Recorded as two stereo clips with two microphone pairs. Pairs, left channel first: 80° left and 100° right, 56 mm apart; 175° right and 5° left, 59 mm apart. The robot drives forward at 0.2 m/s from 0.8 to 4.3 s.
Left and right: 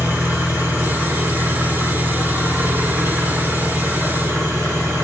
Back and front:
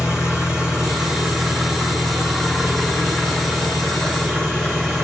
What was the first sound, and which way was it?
An engine running, 65° right.